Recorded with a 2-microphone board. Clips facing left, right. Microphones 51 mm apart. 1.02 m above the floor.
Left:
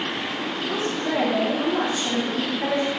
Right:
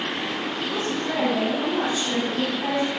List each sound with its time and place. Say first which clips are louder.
0.7 s a woman speaking: left 3 dB; 60° left (ahead or behind), 2.0 m